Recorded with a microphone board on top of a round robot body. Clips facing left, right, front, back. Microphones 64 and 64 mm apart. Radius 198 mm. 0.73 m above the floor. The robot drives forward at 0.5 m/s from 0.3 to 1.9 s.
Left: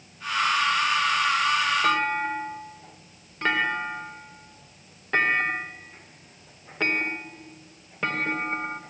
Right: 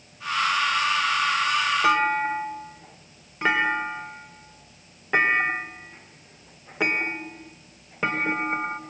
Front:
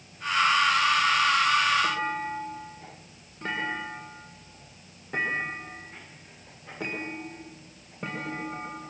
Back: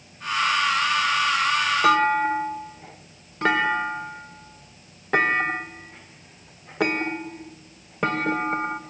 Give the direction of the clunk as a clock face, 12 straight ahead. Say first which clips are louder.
Right 3 dB, back 10 dB; 6 o'clock.